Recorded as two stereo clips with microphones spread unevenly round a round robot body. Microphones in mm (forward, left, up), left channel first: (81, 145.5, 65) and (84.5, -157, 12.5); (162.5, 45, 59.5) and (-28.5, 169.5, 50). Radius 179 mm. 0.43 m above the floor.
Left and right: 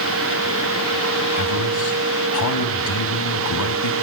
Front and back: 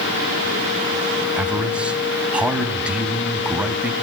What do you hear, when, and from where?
1.4 s a man speaking: 60° left, 4 m